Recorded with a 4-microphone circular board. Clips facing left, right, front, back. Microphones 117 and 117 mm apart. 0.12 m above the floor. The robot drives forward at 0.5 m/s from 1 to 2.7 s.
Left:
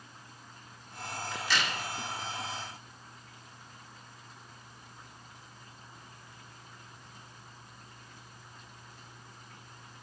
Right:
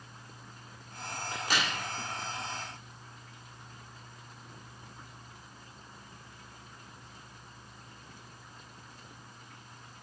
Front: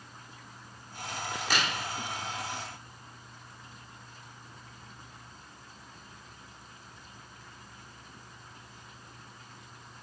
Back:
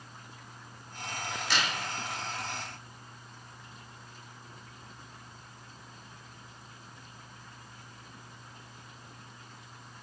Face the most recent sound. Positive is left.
turn(degrees=-65)